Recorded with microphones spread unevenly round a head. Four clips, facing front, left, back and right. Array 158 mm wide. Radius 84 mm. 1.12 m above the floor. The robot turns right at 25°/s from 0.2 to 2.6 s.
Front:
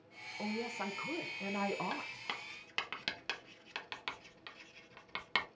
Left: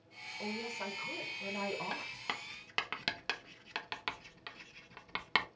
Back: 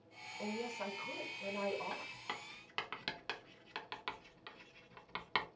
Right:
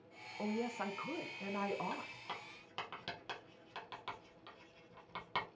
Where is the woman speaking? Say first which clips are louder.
Right 2 dB, front 2 dB; 50° right, 0.8 m; by 2.1 s 5° right, 0.8 m.